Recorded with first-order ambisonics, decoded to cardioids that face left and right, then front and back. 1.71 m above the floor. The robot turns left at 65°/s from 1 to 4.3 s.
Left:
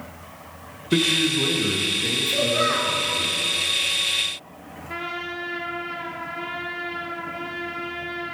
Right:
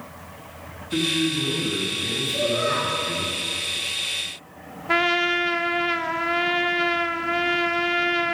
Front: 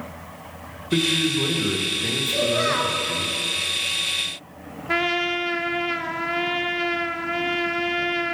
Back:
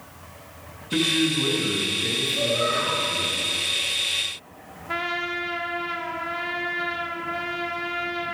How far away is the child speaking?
About 4 m.